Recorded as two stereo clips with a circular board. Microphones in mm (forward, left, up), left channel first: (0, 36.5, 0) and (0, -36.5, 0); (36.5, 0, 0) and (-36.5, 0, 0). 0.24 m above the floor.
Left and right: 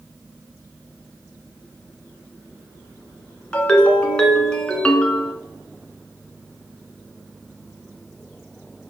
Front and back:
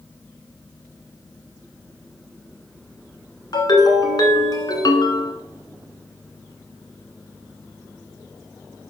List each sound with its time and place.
3.5 s a ringtone: 15° left, 1.3 m